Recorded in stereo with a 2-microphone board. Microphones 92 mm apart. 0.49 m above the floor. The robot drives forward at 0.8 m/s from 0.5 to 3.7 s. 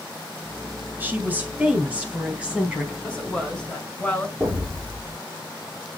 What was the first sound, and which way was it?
A woman speaking, 20° right (ahead or behind).